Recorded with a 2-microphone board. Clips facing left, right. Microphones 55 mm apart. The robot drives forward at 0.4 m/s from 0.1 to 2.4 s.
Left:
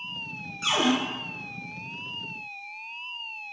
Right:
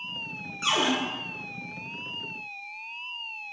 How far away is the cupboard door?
About 1.1 m.